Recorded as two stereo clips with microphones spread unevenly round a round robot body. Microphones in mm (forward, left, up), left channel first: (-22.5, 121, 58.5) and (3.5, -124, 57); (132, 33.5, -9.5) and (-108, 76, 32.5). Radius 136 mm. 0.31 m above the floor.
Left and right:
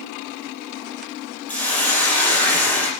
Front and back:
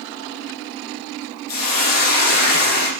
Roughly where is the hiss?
Ahead.